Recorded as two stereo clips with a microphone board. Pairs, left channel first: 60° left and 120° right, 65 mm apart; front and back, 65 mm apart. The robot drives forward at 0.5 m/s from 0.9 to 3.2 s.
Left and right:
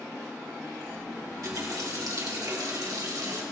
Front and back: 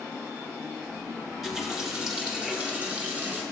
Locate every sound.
1.3 s a running tap: 90° right, 2.5 m; by 3.4 s 115° right, 2.5 m